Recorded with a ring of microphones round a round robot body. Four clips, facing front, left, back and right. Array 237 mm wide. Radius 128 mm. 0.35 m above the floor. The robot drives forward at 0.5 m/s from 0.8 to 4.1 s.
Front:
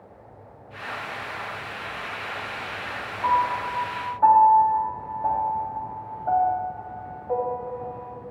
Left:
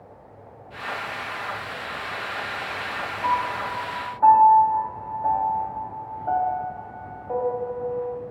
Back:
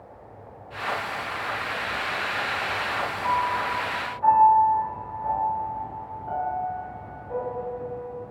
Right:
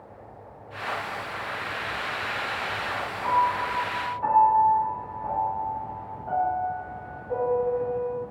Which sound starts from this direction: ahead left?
A piano, at 3.2 s.